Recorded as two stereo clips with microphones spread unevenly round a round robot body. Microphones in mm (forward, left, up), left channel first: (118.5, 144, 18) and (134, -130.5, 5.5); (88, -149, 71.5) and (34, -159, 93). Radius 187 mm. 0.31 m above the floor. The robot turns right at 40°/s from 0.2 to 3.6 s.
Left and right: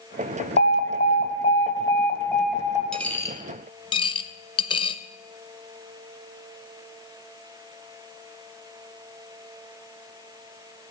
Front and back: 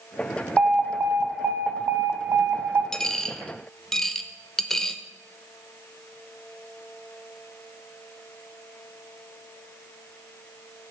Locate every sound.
0.6 s an alarm: 105° left, 0.7 m; by 2.8 s 165° right, 0.7 m
2.9 s a dropped coin: 5° left, 0.5 m; by 5.0 s 30° left, 0.5 m